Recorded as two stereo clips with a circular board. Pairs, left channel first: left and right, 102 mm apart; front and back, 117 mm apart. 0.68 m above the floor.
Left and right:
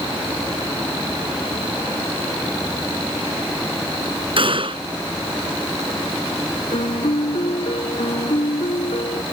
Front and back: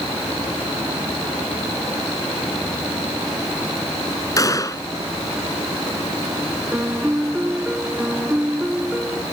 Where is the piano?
100° left.